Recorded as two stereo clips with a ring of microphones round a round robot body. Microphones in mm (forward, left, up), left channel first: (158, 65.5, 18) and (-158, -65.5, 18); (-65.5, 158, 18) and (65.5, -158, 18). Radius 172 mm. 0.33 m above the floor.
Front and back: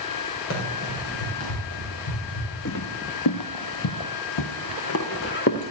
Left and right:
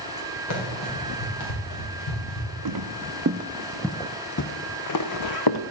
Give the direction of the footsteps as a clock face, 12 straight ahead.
1 o'clock.